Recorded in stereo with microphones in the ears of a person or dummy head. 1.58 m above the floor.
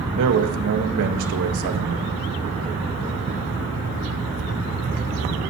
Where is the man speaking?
65° right (ahead or behind), 1.3 m.